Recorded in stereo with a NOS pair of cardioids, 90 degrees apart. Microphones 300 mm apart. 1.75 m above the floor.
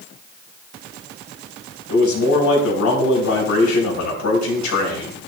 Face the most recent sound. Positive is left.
turn(degrees=65)